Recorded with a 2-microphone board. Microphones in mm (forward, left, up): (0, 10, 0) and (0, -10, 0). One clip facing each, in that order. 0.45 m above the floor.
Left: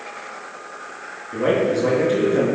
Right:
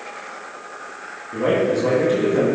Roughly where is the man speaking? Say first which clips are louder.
Even; centre.